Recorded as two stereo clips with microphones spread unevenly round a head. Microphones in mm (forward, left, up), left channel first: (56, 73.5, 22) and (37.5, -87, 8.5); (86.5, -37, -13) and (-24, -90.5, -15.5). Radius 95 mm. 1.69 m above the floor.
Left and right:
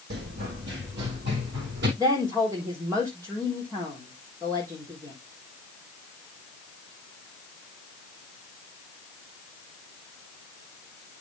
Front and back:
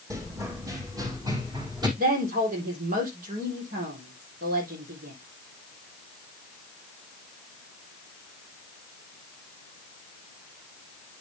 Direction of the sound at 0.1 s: 90° right.